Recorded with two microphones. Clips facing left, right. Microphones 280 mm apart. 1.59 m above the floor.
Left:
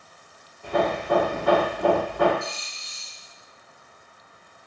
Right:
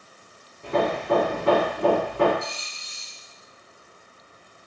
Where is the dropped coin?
20° right (ahead or behind), 2.5 m.